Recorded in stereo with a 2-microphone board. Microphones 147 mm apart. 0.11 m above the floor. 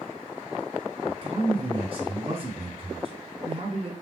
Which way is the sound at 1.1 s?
45° right (ahead or behind).